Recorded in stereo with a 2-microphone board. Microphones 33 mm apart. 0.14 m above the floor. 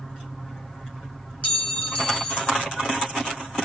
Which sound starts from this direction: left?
A clink, at 1.4 s.